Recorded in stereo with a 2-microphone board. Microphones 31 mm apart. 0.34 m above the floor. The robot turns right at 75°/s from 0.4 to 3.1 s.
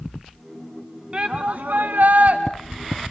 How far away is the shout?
About 3 m.